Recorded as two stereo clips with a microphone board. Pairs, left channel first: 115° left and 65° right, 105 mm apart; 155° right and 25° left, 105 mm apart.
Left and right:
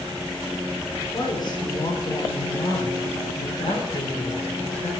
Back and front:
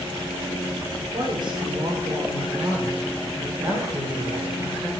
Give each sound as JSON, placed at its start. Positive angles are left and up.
{"t": 1.1, "sound": "a woman speaking", "azimuth_deg": 65, "distance_m": 4.5}